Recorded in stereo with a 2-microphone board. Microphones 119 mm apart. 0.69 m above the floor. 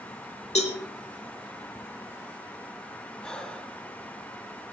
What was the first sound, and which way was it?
A cowbell, 70° left (ahead or behind).